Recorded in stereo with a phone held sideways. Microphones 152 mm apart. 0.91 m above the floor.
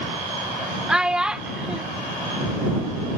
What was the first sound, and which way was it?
A child speaking, 5° right (ahead or behind).